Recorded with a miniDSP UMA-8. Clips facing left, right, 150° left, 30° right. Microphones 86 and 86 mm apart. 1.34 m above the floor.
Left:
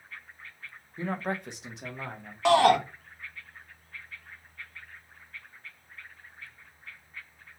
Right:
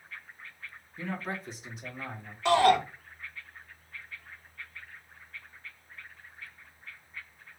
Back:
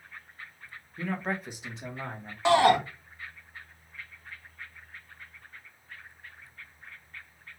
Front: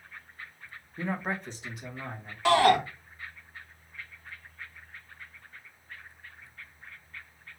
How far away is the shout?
About 1.5 m.